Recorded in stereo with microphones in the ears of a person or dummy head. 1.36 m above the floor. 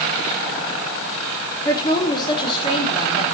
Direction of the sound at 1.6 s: 20° left (ahead or behind).